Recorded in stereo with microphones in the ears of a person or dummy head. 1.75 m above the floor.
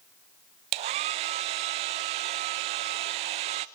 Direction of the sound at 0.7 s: 30° right (ahead or behind).